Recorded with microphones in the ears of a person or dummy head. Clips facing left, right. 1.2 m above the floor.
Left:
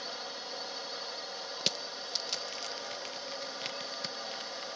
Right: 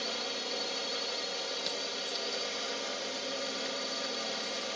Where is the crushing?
40° left (ahead or behind).